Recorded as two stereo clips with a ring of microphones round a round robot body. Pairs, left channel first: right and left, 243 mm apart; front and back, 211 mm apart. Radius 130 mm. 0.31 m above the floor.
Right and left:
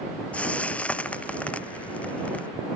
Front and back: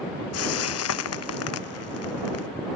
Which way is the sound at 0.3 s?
5° right.